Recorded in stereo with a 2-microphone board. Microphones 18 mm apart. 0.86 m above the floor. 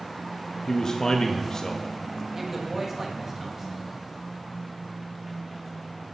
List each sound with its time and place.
0.7 s a man speaking: 35° left (ahead or behind), 0.7 m
2.3 s a woman speaking: 15° right (ahead or behind), 1.4 m